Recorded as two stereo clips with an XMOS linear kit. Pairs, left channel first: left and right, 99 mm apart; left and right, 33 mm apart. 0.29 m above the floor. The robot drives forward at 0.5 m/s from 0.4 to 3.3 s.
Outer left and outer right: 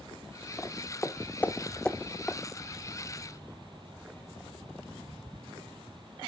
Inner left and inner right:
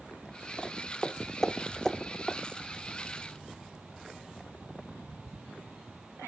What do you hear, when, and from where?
0.6 s footsteps: 20° left (ahead or behind), 0.9 m; by 2.4 s 10° left (ahead or behind), 0.5 m